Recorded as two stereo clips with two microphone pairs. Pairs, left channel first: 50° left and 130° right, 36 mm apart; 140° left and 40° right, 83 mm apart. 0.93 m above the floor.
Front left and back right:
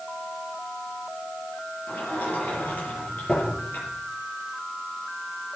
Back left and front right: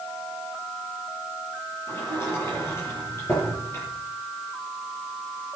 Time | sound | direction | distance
1.9 | a sliding door | 80° left | 7.5 m